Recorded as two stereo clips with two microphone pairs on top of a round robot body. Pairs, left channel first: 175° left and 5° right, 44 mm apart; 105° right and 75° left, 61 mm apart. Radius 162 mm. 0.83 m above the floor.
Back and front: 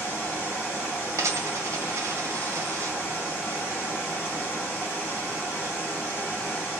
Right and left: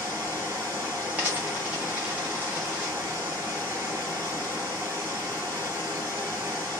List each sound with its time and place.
0.0 s running water: 130° left, 1.2 m
1.2 s a dropped coin: 5° left, 1.0 m